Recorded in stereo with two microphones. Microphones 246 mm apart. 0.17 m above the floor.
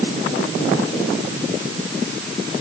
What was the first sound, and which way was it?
Only background noise.